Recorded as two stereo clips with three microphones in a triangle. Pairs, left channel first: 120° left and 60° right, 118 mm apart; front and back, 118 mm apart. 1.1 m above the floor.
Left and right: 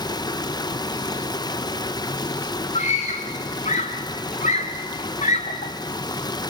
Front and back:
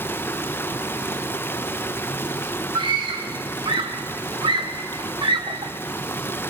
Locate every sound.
0.0 s running water: 70° left, 0.9 m
2.8 s a scream: 130° left, 1.0 m